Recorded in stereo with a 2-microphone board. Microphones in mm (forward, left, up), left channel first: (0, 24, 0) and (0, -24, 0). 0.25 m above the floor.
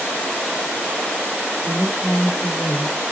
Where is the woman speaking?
35° right (ahead or behind), 7.5 m.